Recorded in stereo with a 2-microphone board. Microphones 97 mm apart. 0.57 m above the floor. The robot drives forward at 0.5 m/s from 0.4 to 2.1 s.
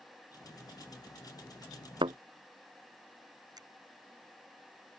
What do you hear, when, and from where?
2.0 s a thud: 75° right (ahead or behind)
3.6 s a finger snap: 50° right (ahead or behind)